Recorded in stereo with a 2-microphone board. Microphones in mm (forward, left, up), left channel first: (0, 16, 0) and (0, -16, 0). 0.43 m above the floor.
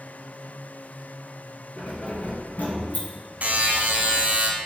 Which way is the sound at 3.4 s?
55° right (ahead or behind).